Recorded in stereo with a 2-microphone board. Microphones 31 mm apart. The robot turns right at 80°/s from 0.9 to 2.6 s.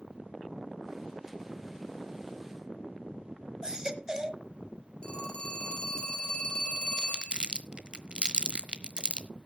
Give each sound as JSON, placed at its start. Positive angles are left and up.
{"t": 3.6, "sound": "a baby crying", "side_deg": -20, "distance_m": 1.0}
{"t": 5.0, "sound": "a phone ringing", "side_deg": 35, "distance_m": 3.5}
{"t": 7.0, "sound": "crumpling", "side_deg": -35, "distance_m": 1.0}